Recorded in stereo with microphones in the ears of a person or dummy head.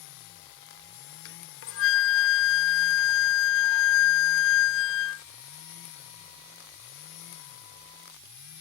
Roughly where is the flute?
Left.